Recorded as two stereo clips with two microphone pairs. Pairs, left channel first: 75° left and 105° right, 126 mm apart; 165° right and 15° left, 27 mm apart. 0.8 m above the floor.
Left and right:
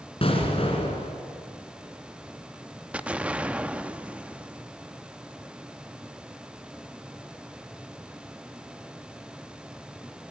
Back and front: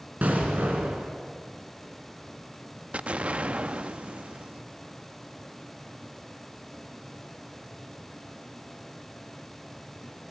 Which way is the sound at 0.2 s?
30° left.